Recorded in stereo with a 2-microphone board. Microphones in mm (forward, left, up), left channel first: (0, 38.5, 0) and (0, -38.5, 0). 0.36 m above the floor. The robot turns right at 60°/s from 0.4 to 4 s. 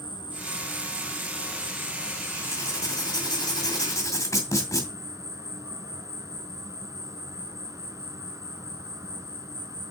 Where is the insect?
100° left, 1.3 m; by 9.9 s 45° right, 1.3 m.